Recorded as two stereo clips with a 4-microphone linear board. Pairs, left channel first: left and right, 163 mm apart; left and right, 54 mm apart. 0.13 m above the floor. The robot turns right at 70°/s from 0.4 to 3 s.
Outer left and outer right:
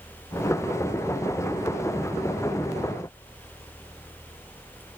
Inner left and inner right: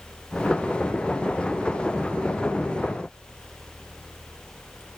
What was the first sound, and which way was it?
Only background noise.